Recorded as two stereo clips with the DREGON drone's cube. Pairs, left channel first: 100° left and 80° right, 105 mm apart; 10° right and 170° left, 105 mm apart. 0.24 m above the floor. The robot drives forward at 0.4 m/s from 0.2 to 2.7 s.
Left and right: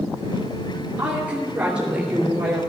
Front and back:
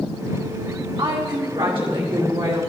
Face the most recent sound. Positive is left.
turn(degrees=-150)